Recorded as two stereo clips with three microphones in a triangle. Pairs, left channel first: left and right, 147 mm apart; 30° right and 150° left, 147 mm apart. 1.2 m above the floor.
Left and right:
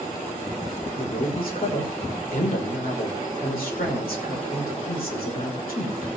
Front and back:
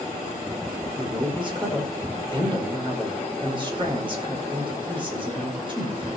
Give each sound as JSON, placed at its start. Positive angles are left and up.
{"t": 1.0, "sound": "a man speaking", "azimuth_deg": 95, "distance_m": 5.0}